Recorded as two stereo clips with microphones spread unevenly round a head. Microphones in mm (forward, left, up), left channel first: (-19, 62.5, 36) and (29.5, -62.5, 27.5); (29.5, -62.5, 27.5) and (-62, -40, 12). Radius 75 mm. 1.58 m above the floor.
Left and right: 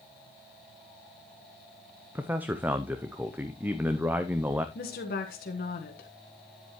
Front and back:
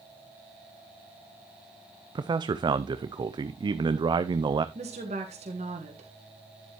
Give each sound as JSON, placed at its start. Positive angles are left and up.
{"t": 2.1, "sound": "a man speaking", "azimuth_deg": -150, "distance_m": 0.5}
{"t": 4.8, "sound": "a woman speaking", "azimuth_deg": 135, "distance_m": 1.4}